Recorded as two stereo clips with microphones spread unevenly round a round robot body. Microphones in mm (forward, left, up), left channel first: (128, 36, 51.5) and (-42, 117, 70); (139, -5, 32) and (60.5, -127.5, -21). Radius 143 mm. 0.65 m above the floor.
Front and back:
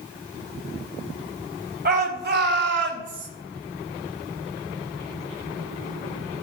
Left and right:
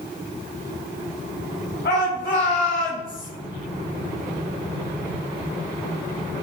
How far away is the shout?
About 4 m.